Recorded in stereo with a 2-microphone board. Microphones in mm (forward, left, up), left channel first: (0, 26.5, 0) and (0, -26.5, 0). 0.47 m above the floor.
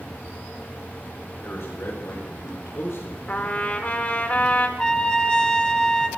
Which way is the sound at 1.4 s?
60° left (ahead or behind).